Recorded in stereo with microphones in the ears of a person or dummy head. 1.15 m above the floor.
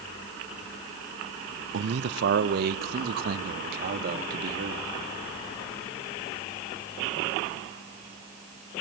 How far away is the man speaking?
About 0.5 m.